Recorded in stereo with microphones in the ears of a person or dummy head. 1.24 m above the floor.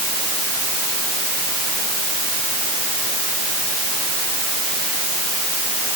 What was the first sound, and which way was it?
Only background noise.